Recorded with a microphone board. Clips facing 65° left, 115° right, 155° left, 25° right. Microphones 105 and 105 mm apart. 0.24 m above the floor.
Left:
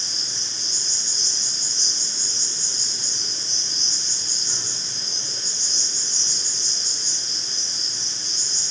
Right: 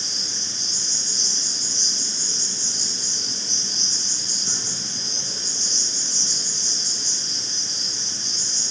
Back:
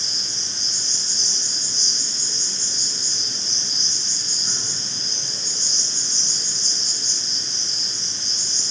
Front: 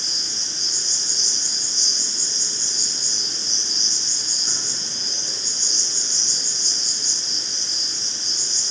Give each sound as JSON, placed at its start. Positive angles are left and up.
{"t": 0.0, "sound": "an insect", "azimuth_deg": -105, "distance_m": 1.8}